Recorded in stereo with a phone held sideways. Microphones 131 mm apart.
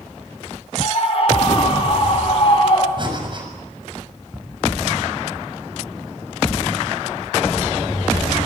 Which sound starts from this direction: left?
A scream, at 0.8 s.